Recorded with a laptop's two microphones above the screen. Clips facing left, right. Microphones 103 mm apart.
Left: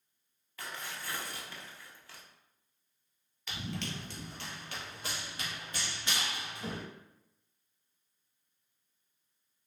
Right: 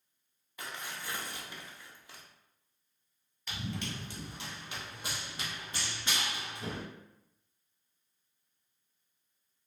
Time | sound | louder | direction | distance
0.6 | tearing paper | even | 20° right (ahead or behind) | 0.7 m
3.5 | running footsteps | even | 5° right (ahead or behind) | 1.3 m